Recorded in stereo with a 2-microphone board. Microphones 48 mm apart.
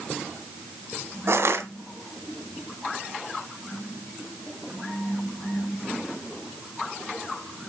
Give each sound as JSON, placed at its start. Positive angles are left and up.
{"t": 1.3, "sound": "crushing", "side_deg": -65, "distance_m": 1.9}